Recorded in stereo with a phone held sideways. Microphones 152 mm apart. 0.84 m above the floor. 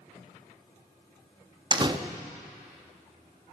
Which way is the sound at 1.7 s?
30° right (ahead or behind).